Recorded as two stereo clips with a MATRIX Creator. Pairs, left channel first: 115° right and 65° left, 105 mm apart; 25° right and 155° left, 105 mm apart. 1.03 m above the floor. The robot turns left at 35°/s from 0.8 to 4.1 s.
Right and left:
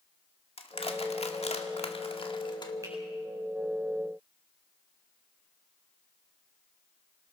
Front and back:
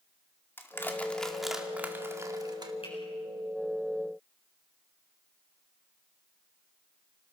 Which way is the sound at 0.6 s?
90° right.